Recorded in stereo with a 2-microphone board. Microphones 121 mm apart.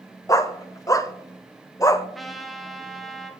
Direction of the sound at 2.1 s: Centre (ahead or behind).